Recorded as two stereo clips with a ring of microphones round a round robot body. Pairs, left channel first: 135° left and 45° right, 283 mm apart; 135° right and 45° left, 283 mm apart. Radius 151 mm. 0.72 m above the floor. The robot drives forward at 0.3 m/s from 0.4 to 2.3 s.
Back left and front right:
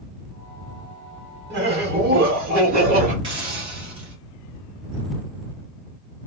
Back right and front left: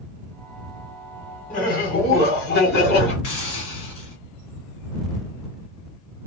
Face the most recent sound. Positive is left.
turn(degrees=-120)